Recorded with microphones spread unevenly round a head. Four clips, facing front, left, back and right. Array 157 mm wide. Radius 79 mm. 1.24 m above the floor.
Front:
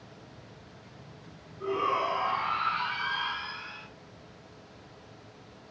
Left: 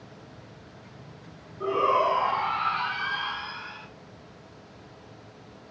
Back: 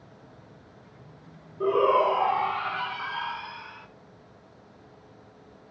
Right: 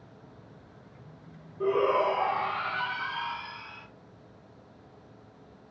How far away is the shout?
About 1.4 m.